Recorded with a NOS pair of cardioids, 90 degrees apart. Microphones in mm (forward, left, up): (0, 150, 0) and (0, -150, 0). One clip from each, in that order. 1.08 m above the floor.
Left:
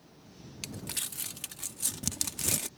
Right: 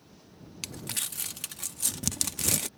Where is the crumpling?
15° right.